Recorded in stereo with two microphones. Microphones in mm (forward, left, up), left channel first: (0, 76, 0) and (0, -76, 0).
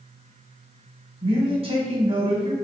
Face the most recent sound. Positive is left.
turn(degrees=-40)  # may be behind; listen again after turning